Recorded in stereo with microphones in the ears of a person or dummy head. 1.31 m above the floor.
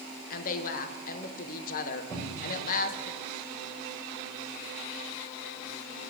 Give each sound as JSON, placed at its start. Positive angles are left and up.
{"t": 0.3, "sound": "a woman speaking", "side_deg": 45, "distance_m": 0.8}
{"t": 2.1, "sound": "a cupboard door", "side_deg": 10, "distance_m": 3.5}